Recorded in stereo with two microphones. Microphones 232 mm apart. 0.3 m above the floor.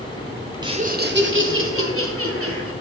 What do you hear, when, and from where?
0.6 s laughter: 15° right (ahead or behind), 1.0 m; by 2.7 s 75° right (ahead or behind), 3.5 m